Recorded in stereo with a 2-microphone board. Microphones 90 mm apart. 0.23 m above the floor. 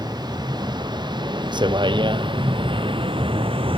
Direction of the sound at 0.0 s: 55° right (ahead or behind).